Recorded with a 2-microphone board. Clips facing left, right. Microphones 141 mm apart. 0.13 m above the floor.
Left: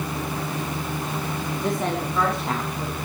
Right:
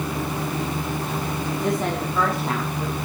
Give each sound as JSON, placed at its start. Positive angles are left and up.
{"t": 1.6, "sound": "a woman speaking", "side_deg": 0, "distance_m": 7.0}